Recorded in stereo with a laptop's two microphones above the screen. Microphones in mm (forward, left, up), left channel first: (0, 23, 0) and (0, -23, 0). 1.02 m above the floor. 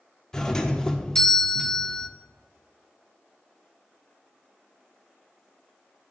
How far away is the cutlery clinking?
No cutlery clinking in this recording.